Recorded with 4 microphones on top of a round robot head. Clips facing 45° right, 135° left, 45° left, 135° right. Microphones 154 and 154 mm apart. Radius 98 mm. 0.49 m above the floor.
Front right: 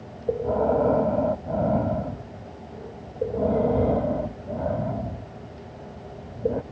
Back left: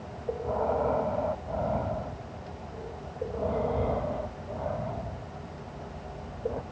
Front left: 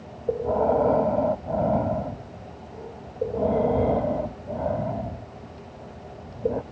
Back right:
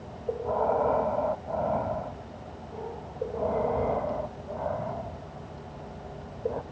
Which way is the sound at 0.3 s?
10° right.